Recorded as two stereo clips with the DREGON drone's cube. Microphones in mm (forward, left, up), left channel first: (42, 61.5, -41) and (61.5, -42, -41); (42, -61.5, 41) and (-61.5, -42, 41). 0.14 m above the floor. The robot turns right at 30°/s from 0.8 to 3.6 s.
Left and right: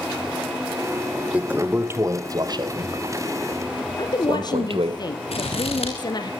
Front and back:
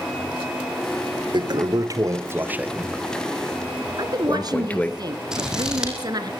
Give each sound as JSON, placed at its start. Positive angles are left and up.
{"t": 1.3, "sound": "a toilet flushing", "azimuth_deg": -155, "distance_m": 1.0}
{"t": 4.0, "sound": "a woman speaking", "azimuth_deg": 135, "distance_m": 2.5}
{"t": 5.3, "sound": "scissors", "azimuth_deg": 85, "distance_m": 4.0}